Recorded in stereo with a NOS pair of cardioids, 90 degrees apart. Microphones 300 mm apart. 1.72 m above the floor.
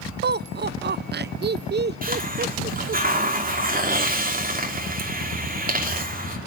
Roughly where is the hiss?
Ahead right.